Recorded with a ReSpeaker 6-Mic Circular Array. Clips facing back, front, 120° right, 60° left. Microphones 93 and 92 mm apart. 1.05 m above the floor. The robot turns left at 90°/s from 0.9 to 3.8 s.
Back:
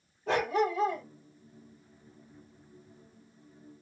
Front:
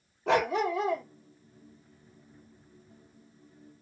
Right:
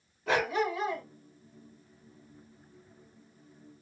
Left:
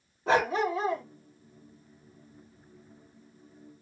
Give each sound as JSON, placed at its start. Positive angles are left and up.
{"t": 0.3, "sound": "a dog barking", "azimuth_deg": 5, "distance_m": 1.0}